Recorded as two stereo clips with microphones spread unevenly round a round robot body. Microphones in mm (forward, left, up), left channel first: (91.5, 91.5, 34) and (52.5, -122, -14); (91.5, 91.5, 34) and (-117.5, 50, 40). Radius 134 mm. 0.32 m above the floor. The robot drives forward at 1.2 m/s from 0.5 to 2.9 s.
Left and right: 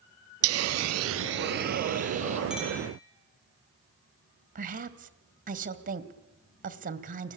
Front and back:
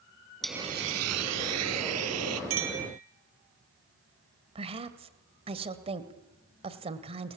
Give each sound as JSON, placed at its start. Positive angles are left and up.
{"t": 0.4, "sound": "a hiss", "azimuth_deg": -80, "distance_m": 0.5}
{"t": 2.5, "sound": "a clink", "azimuth_deg": 170, "distance_m": 6.0}
{"t": 4.5, "sound": "a woman speaking", "azimuth_deg": -110, "distance_m": 1.9}